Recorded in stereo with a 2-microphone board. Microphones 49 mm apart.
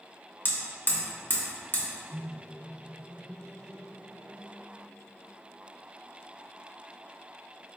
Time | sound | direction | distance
0.5 | hammering | 40° left (ahead or behind) | 0.7 m
2.1 | a microwave | 40° left (ahead or behind) | 1.8 m